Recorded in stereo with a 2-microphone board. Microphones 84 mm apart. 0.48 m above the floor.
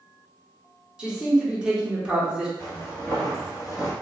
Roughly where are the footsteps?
Left.